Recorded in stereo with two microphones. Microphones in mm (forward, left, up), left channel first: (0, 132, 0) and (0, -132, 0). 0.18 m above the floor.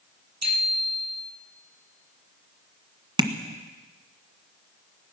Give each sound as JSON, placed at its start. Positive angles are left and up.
{"t": 0.4, "sound": "a bicycle bell", "side_deg": -70, "distance_m": 4.0}
{"t": 3.2, "sound": "tapping", "side_deg": -15, "distance_m": 1.8}